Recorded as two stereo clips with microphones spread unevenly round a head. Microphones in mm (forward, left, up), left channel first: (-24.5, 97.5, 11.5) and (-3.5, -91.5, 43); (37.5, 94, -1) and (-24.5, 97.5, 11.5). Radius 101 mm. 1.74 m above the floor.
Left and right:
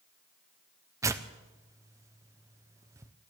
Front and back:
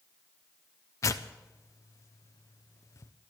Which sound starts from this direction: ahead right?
Tearing paper, at 1.0 s.